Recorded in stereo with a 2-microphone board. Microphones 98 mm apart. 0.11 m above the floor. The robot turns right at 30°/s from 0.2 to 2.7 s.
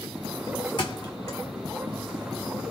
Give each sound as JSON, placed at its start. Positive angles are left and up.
{"t": 0.8, "sound": "a thud", "side_deg": 55, "distance_m": 1.4}